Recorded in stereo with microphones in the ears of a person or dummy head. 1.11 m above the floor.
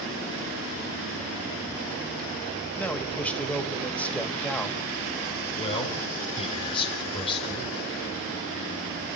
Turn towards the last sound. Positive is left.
turn(degrees=30)  # may be behind; listen again after turning